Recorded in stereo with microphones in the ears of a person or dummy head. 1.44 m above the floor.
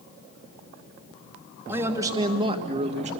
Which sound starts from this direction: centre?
A man speaking, at 1.7 s.